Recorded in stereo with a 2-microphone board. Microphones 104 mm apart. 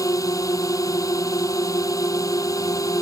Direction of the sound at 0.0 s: 35° left (ahead or behind).